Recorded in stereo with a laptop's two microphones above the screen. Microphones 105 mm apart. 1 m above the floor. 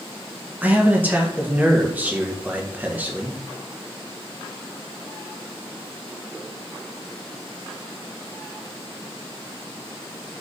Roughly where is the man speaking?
Centre.